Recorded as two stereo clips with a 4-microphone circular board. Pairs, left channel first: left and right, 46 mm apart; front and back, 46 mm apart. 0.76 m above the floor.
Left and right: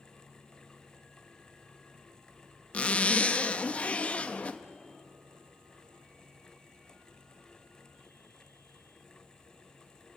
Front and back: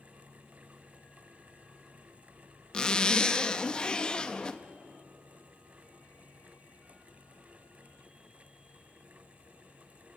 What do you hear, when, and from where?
2.7 s a zipper: 55° left, 0.9 m